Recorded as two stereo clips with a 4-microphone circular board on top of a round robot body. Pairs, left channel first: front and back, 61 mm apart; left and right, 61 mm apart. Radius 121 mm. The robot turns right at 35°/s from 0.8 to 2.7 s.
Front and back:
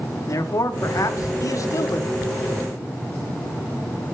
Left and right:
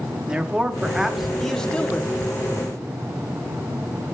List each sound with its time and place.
0.3 s a man speaking: 15° right, 1.1 m; by 2.2 s 35° left, 1.1 m